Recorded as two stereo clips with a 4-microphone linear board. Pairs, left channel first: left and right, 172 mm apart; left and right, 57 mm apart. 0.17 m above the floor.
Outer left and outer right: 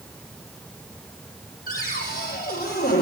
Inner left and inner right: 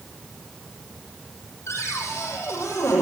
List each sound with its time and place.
1.7 s a cupboard door: 55° left (ahead or behind), 7 m